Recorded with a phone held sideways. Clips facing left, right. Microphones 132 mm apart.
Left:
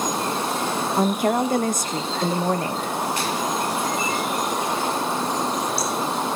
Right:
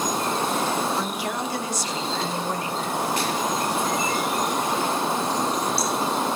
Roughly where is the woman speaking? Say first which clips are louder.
Left 7 dB; left.